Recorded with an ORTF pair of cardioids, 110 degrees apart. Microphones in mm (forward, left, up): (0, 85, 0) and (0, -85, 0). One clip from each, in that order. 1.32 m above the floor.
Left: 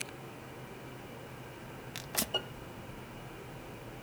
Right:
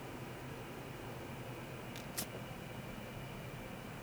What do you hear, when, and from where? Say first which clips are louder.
1.9 s tearing paper: left 13 dB; 55° left